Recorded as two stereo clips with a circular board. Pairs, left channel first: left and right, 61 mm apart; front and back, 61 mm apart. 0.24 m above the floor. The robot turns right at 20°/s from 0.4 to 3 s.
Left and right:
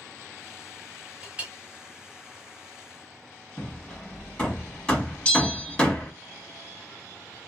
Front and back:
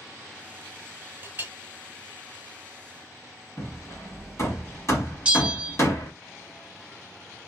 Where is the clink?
150° right, 0.7 m; by 1.5 s 145° right, 0.7 m.